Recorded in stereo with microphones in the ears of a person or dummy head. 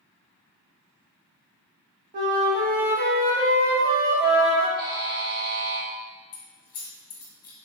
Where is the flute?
50° right (ahead or behind), 0.8 m.